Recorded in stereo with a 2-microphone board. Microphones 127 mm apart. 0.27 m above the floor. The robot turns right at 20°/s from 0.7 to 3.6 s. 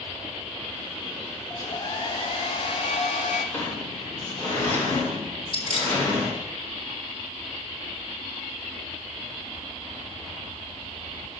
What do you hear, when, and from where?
1.5 s a hair dryer: 35° left, 1.2 m; by 3.4 s 75° left, 1.2 m
3.5 s a sliding door: 20° left (ahead or behind), 2.5 m
5.5 s keys jangling: 60° left (ahead or behind), 1.4 m